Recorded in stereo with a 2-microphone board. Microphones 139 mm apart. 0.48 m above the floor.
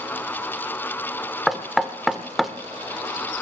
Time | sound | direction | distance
1.5 | knocking | centre (ahead or behind) | 0.8 m